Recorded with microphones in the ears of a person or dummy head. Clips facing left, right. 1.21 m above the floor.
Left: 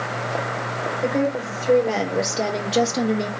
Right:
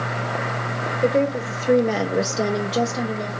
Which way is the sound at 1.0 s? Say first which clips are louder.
Right 3 dB; 30° right (ahead or behind).